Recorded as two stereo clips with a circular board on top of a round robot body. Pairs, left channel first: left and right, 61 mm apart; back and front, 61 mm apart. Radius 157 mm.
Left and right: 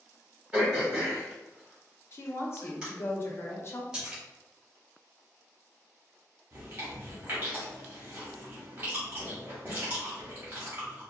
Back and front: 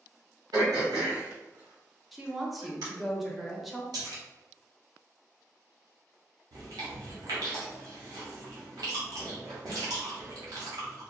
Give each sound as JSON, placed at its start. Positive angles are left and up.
{"t": 0.5, "sound": "throat clearing", "azimuth_deg": -10, "distance_m": 1.3}
{"t": 2.1, "sound": "a woman speaking", "azimuth_deg": 85, "distance_m": 0.8}
{"t": 3.9, "sound": "a splash", "azimuth_deg": -15, "distance_m": 0.8}
{"t": 6.5, "sound": "chewing", "azimuth_deg": -30, "distance_m": 0.8}